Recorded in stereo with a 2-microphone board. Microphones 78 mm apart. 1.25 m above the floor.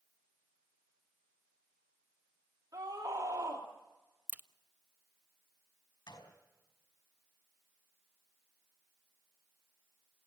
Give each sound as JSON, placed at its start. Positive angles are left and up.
{"t": 2.7, "sound": "a scream", "side_deg": -45, "distance_m": 2.5}
{"t": 4.3, "sound": "a crack", "side_deg": -20, "distance_m": 0.6}
{"t": 6.1, "sound": "a gunshot", "side_deg": 65, "distance_m": 5.0}